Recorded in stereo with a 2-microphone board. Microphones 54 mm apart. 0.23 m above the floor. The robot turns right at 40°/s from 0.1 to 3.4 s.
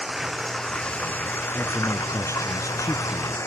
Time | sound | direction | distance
0.0 | running water | 10° right | ?
1.6 | a man speaking | 40° left | ?